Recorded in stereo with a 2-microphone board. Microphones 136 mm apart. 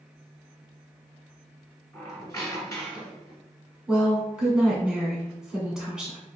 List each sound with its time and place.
1.9 s a squeak: 25° left (ahead or behind), 1.1 m
3.9 s a woman speaking: 5° right (ahead or behind), 1.6 m